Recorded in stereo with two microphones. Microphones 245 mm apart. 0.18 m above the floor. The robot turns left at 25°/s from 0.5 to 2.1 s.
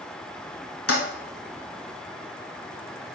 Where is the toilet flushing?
70° left (ahead or behind), 1.1 m.